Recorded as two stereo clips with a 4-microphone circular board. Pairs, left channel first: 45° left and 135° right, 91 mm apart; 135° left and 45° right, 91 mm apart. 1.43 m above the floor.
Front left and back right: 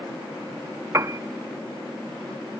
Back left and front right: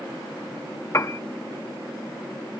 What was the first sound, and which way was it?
A piano, straight behind.